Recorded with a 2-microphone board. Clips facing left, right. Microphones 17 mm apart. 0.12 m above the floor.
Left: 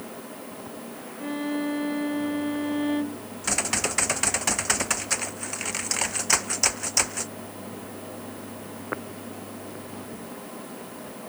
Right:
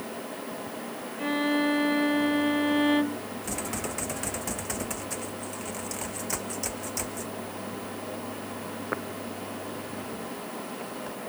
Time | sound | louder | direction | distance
1.2 | a violin | right 3 dB | 20° right (ahead or behind) | ?
3.4 | typing on a keyboard | left 9 dB | 45° left (ahead or behind) | ?